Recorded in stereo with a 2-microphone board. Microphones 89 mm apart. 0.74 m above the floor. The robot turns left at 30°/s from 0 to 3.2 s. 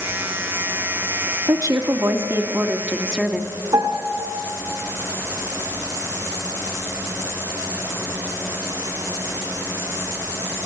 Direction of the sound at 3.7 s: 70° right (ahead or behind).